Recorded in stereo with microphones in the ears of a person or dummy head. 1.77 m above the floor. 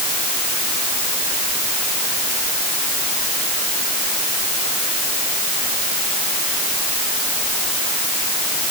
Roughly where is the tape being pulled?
I don't hear tape being pulled.